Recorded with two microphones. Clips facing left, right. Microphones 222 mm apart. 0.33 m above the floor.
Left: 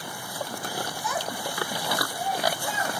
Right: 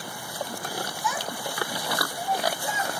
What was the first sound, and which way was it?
A child speaking, 35° left (ahead or behind).